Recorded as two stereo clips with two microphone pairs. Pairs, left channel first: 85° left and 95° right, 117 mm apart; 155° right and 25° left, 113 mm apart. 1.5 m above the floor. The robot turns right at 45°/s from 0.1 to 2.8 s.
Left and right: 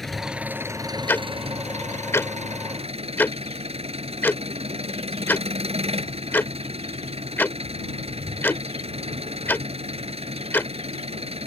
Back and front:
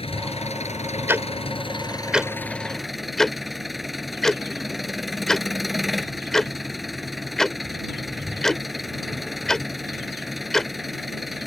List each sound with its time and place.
0.0 s an engine running: 175° left; by 11.5 s 65° right
1.1 s ticking: 50° left; by 10.7 s 130° left